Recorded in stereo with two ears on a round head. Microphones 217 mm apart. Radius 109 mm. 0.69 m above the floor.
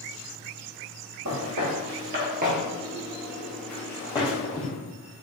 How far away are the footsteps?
About 1.3 m.